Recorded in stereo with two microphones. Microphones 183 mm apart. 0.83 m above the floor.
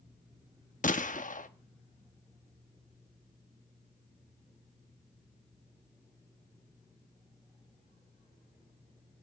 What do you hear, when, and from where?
0.8 s a gunshot: 50° left (ahead or behind), 1.0 m